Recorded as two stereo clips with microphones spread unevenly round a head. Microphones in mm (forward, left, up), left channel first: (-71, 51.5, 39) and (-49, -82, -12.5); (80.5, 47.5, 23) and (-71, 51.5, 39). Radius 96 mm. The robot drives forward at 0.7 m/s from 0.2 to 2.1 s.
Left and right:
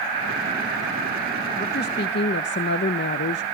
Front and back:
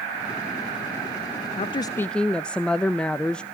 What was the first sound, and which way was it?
A woman speaking, 45° left.